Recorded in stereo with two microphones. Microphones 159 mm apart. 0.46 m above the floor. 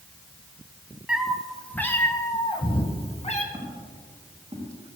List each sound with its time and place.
1.1 s a cat meowing: 5° right (ahead or behind), 1.7 m; by 3.4 s 45° left (ahead or behind), 2.0 m
3.5 s footsteps: 35° right (ahead or behind), 6 m; by 4.8 s 40° right (ahead or behind), 7 m